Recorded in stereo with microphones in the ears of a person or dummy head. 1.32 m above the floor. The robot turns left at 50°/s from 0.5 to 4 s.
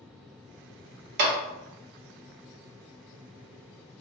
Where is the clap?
55° right (ahead or behind), 0.6 m; by 1.4 s 50° right (ahead or behind), 0.6 m.